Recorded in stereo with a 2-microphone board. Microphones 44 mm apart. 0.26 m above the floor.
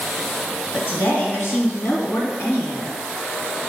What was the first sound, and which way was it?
A woman speaking, 50° left (ahead or behind).